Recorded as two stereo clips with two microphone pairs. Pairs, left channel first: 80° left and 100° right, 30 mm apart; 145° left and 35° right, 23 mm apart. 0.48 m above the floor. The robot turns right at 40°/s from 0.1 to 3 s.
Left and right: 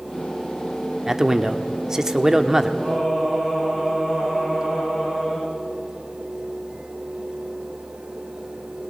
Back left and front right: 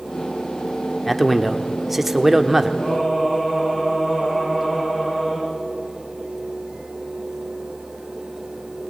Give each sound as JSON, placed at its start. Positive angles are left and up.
{"t": 1.1, "sound": "a man speaking", "azimuth_deg": -140, "distance_m": 1.1}
{"t": 2.8, "sound": "singing", "azimuth_deg": -170, "distance_m": 8.0}